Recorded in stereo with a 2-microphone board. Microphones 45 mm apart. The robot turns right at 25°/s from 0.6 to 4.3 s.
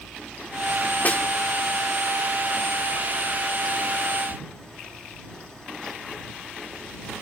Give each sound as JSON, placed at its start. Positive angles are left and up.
{"t": 1.1, "sound": "a snare drum", "side_deg": 40}